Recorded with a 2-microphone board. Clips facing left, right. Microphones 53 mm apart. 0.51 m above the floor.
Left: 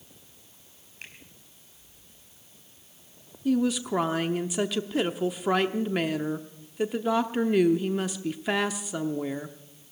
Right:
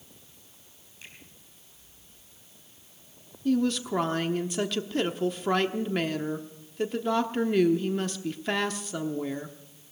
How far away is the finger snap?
About 3.5 m.